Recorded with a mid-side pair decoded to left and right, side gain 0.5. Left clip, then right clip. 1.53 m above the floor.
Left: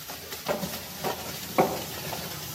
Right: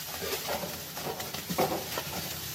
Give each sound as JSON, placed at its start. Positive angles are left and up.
{"t": 0.5, "sound": "footsteps", "azimuth_deg": 60, "distance_m": 7.0}